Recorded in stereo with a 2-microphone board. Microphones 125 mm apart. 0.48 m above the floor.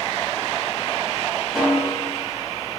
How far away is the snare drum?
About 1.0 m.